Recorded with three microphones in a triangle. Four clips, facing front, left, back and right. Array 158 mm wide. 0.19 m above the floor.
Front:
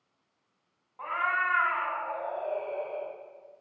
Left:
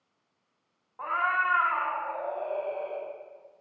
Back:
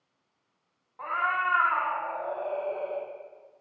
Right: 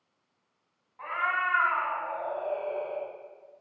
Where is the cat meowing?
100° left, 0.8 m; by 3.1 s 150° right, 1.3 m.